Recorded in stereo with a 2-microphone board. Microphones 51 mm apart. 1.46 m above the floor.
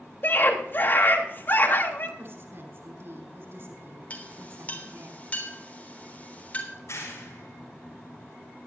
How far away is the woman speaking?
About 5.5 m.